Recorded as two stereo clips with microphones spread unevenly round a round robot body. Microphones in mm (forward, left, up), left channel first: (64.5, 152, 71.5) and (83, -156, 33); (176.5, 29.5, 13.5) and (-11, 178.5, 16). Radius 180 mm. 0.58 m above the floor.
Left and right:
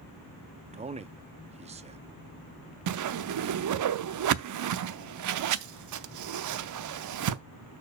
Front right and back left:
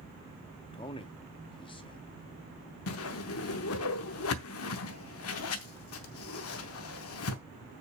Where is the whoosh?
70° right, 0.7 m.